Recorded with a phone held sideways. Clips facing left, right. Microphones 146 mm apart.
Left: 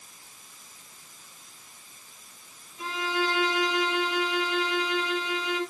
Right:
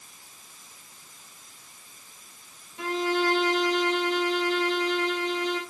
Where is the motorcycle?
No motorcycle in this recording.